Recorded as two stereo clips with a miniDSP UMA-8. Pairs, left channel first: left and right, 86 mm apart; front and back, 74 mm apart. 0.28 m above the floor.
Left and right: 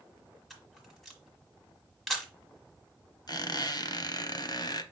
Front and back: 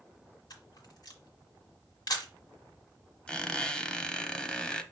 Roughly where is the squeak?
Left.